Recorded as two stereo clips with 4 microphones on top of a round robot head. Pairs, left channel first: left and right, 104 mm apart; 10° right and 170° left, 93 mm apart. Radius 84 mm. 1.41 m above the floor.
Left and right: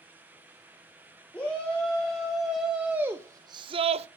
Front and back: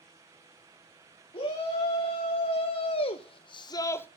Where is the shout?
10° left, 1.7 m; by 4.1 s 80° right, 0.6 m.